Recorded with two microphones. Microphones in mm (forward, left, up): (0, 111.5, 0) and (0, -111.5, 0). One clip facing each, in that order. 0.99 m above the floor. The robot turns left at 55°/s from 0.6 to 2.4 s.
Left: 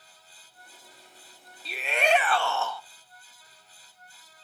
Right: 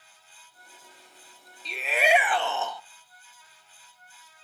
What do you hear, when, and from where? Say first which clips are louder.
1.6 s a shout: right 1 dB; 10° left, 0.6 m; by 2.8 s 30° right, 0.6 m